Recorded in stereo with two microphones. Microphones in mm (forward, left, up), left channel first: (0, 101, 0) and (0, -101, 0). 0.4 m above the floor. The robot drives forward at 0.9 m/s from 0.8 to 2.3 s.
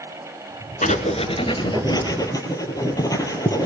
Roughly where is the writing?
Left.